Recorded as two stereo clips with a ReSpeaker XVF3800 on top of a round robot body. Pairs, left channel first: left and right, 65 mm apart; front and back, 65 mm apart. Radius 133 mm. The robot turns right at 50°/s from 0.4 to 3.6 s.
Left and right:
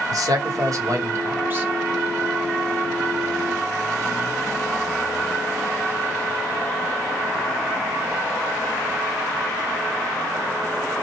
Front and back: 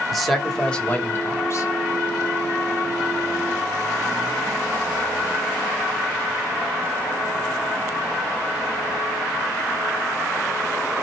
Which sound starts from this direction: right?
A man speaking, at 0.1 s.